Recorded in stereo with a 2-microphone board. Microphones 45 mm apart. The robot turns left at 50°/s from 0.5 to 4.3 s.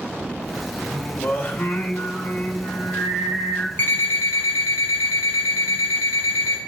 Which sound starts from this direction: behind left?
Singing, at 0.8 s.